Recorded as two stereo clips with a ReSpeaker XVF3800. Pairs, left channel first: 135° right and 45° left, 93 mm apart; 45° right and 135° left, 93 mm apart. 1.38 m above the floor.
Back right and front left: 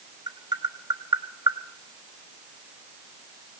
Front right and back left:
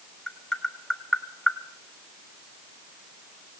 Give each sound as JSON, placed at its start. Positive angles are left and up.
{"t": 0.3, "sound": "tapping", "azimuth_deg": 40, "distance_m": 1.0}